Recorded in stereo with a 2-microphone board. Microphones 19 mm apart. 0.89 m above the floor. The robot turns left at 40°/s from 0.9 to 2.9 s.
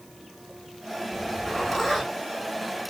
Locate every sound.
1.1 s a zipper: 30° left (ahead or behind), 1.5 m; by 2.9 s 40° right (ahead or behind), 1.5 m